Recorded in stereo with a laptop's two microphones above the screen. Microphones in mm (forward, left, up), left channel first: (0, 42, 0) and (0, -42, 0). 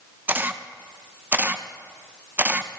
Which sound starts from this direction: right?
A camera shutter, at 0.3 s.